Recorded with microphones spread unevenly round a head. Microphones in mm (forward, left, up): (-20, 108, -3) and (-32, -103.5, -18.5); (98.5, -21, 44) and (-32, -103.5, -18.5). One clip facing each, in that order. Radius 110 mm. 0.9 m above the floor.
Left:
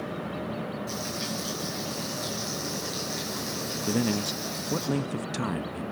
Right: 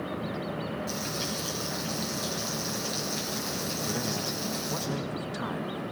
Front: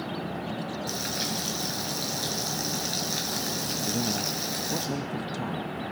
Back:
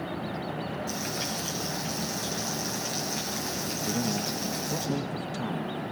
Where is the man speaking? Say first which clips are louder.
Left 10 dB, back 1 dB; 130° left, 0.7 m.